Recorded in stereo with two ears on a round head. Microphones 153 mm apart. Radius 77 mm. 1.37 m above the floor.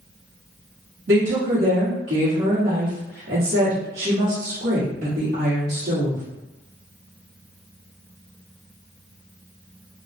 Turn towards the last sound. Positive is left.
turn(degrees=-60)  # may be behind; listen again after turning